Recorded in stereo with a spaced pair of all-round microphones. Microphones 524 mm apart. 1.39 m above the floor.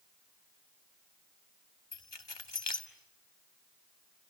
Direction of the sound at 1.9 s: 50° left (ahead or behind).